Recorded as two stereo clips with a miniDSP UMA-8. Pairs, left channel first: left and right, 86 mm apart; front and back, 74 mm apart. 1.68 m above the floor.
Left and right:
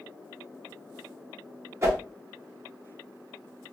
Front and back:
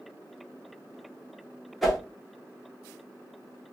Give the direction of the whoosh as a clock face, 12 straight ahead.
3 o'clock.